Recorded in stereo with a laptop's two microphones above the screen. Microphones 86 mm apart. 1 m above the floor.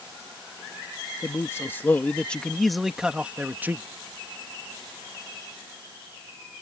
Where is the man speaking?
30° left (ahead or behind); by 3.9 s 25° right (ahead or behind).